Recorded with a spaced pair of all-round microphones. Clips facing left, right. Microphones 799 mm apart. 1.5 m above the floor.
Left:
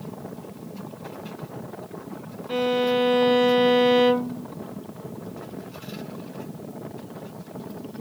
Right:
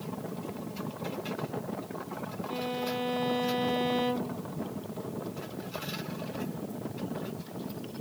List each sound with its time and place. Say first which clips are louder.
2.5 s a violin: left 13 dB; 85° left